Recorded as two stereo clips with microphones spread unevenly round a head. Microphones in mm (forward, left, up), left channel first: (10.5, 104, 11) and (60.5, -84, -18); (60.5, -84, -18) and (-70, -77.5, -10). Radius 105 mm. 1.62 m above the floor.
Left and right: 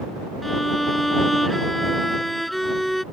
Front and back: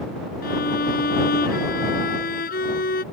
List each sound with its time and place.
0.4 s a violin: 15° left